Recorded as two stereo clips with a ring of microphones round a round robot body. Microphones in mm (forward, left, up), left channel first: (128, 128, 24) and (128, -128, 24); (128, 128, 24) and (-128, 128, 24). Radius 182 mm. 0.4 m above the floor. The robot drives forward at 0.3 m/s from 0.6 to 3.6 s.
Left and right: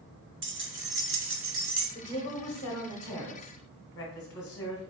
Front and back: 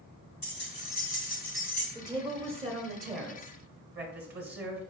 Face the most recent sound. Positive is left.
turn(degrees=160)